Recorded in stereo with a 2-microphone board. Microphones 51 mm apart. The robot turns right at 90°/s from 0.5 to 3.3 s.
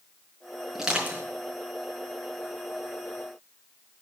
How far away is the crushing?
About 4.5 m.